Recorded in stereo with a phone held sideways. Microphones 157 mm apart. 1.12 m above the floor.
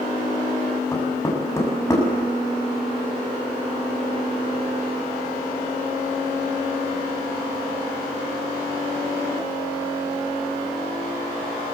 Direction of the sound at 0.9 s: 20° left (ahead or behind).